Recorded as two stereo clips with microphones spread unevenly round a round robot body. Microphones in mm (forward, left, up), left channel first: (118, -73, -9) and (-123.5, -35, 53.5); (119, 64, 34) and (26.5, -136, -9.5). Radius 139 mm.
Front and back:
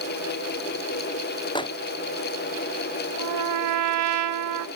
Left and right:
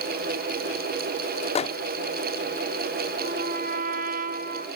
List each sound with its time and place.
1.6 s a microwave: 5° left, 0.6 m
3.2 s a trumpet: straight behind, 1.0 m